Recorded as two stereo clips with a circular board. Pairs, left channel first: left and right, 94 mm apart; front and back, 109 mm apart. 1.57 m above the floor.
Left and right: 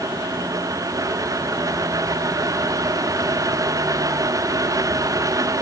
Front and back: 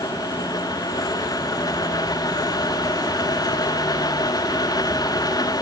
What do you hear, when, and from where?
Only background noise.